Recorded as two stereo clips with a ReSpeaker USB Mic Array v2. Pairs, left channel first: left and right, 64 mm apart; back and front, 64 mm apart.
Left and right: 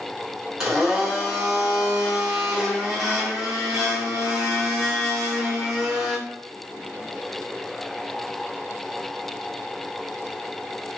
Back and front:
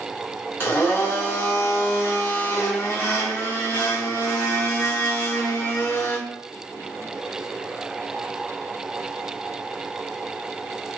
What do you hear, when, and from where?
0.6 s a blender: 165° right, 1.4 m